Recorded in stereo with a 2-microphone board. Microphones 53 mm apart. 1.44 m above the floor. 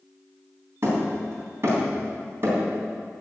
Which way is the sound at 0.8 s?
50° right (ahead or behind).